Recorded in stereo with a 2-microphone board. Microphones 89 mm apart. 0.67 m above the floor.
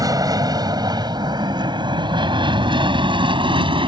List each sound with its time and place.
0.0 s an aircraft: 45° right (ahead or behind); by 3.9 s 70° right (ahead or behind)